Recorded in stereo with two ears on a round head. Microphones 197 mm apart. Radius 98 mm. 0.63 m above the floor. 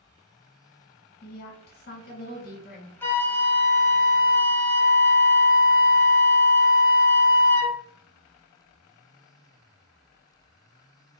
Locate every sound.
1.2 s a woman speaking: 45° left (ahead or behind), 1.0 m
3.0 s a flute: 10° left (ahead or behind), 0.6 m